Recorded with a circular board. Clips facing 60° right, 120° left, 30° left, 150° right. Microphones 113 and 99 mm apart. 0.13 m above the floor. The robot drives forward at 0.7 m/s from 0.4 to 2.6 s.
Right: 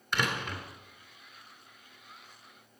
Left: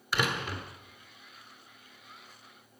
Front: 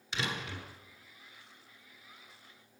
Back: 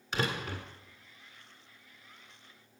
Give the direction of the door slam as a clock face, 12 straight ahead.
5 o'clock.